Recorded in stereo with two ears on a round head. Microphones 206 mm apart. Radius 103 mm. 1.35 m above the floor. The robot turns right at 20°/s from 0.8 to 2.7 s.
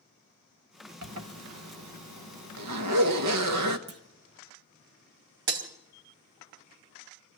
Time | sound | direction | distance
1.0 | a zipper | 65° right (ahead or behind) | 1.3 m
3.9 | a clunk | 65° right (ahead or behind) | 1.4 m
5.5 | breaking glass | 50° right (ahead or behind) | 1.8 m